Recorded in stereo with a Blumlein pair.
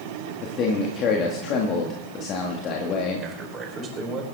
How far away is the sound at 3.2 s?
About 4.5 m.